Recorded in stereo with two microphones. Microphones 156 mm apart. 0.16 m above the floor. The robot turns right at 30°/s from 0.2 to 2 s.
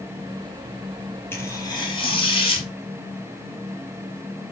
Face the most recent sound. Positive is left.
turn(degrees=35)  # may be behind; listen again after turning